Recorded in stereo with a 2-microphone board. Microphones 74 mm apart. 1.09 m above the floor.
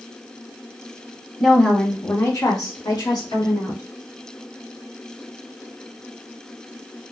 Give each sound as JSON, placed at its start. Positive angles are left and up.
{"t": 1.4, "sound": "a woman speaking", "side_deg": 0, "distance_m": 1.1}